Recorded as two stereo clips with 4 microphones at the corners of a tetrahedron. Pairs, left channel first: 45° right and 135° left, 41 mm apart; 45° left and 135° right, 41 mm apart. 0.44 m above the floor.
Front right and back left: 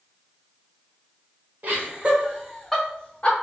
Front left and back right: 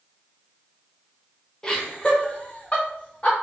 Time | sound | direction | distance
1.6 | laughter | 115° left | 1.2 m